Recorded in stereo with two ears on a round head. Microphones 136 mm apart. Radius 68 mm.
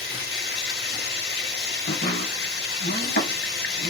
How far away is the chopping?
About 4.5 m.